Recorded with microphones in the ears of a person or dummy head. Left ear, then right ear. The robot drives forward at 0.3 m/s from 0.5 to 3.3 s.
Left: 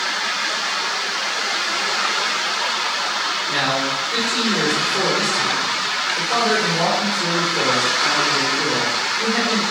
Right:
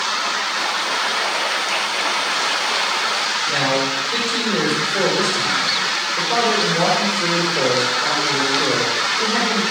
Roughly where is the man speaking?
Centre.